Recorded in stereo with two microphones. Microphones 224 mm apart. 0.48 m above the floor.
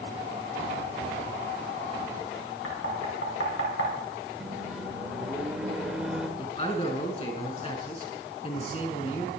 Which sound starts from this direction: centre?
A microwave, at 4.4 s.